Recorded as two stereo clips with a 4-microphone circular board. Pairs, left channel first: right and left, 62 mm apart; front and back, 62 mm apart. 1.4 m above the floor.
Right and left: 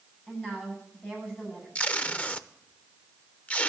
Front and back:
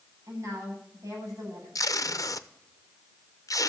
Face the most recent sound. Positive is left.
turn(degrees=-25)